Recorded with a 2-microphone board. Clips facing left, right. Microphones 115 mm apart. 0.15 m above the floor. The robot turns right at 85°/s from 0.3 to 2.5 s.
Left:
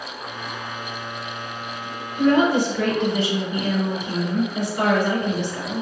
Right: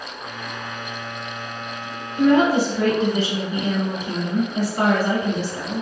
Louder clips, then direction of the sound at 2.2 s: Right 1 dB; 50° right (ahead or behind).